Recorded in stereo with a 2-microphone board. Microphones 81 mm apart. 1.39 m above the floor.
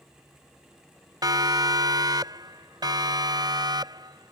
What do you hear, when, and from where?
1.2 s a siren: 60° right (ahead or behind); by 4.3 s 65° right (ahead or behind)